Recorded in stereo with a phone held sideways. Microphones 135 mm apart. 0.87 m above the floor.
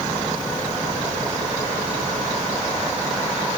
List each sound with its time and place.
Only background noise.